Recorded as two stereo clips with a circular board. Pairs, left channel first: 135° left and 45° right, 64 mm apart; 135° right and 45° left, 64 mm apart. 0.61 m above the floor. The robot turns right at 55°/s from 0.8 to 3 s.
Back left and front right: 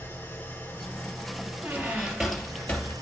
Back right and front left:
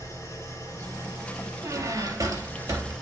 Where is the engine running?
165° right, 3 m; by 3.0 s 45° right, 3 m.